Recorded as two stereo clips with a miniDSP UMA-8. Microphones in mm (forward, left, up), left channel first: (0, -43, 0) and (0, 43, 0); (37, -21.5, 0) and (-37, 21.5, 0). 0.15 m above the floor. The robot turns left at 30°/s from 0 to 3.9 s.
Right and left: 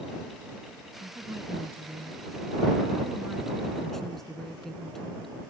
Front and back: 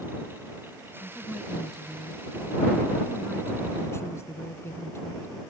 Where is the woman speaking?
80° left; by 5.3 s 5° right.